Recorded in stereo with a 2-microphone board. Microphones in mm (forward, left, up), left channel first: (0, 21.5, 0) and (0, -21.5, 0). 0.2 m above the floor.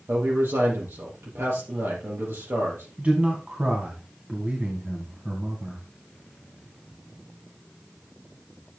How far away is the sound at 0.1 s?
About 5.5 m.